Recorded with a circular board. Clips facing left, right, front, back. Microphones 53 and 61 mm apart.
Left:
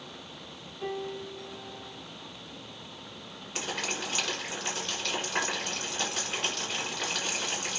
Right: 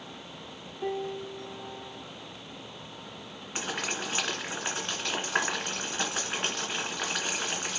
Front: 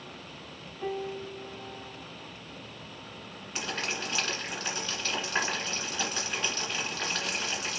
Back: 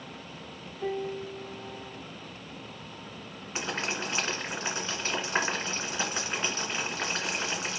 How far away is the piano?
About 1.6 m.